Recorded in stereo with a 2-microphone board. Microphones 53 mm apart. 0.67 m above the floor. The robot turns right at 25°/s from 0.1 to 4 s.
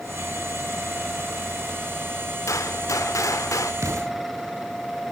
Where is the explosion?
70° right (ahead or behind), 2.5 m; by 4.1 s 75° right (ahead or behind), 2.5 m.